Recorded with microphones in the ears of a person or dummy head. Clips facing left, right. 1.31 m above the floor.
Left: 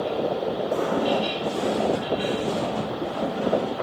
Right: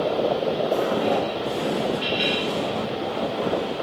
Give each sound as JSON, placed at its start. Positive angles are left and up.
{"t": 0.7, "sound": "footsteps", "side_deg": -10, "distance_m": 4.0}